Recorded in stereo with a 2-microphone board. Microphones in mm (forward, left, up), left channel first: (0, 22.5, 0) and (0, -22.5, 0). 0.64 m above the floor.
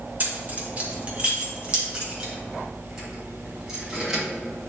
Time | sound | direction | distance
0.2 | keys jangling | 40° right (ahead or behind) | 1.5 m